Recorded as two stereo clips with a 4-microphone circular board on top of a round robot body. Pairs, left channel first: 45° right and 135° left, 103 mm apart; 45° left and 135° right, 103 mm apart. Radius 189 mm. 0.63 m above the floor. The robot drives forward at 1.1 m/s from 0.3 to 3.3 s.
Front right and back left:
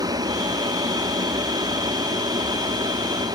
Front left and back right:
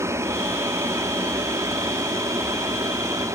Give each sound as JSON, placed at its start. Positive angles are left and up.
{"t": 0.0, "sound": "an aircraft", "azimuth_deg": 170}